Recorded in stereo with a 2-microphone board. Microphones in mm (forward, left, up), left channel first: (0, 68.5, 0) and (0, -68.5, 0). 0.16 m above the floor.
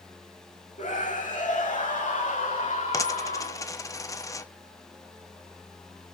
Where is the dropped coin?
25° left (ahead or behind), 0.9 m.